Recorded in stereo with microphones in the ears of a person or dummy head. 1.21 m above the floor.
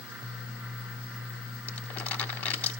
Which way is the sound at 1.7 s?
10° left (ahead or behind).